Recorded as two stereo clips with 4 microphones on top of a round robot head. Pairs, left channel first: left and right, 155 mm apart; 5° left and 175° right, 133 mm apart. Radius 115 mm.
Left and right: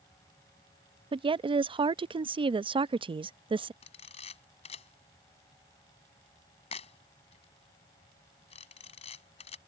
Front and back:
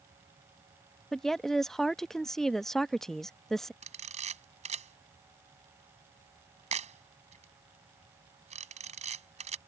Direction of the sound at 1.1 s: 80° right.